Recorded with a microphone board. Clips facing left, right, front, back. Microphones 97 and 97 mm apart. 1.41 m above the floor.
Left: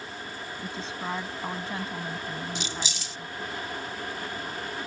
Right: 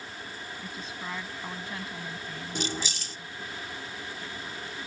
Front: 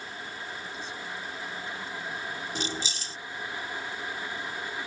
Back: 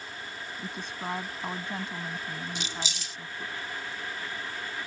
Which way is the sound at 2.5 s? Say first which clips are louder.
Right 1 dB, front 3 dB; 50° right.